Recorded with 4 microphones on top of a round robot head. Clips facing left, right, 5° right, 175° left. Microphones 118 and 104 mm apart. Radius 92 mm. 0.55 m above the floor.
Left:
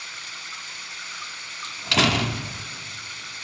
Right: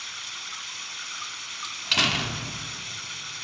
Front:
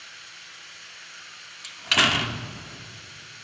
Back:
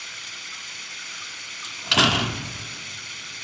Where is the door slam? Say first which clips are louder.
Left 7 dB, back 3 dB; 115° left, 1.0 m.